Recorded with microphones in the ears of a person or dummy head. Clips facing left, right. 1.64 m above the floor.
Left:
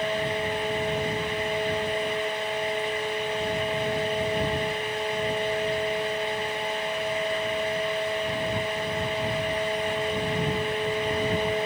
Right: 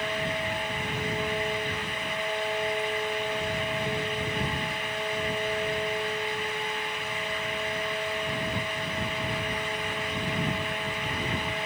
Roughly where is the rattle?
I don't hear a rattle.